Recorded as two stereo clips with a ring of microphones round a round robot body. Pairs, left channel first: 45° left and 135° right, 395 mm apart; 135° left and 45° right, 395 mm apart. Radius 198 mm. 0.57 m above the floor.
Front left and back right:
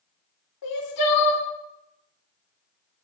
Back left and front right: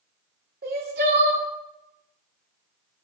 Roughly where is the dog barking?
No dog barking in this recording.